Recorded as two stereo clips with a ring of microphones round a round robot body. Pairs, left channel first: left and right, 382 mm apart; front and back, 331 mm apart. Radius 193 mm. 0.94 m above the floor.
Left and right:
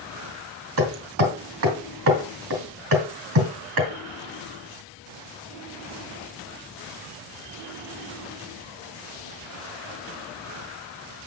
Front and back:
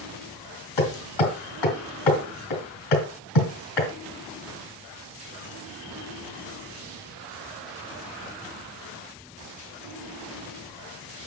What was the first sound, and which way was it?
Hammering, 35° right.